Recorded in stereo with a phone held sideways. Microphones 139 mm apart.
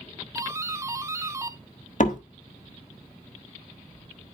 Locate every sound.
0.3 s a doorbell: 20° right (ahead or behind), 0.6 m
2.0 s a door slam: 65° left (ahead or behind), 1.5 m